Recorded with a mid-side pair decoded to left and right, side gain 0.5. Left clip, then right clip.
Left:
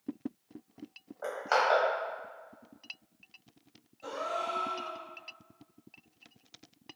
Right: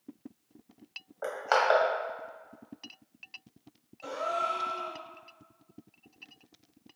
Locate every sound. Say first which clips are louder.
1.2 s crushing: right 2 dB; 40° right, 1.1 m
4.0 s a gasp: right 3 dB; 50° right, 1.4 m